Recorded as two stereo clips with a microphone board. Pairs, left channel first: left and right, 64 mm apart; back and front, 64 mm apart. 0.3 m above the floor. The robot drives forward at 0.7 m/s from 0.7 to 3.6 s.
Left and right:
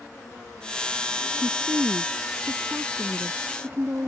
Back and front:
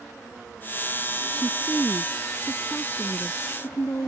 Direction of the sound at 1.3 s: 110° right.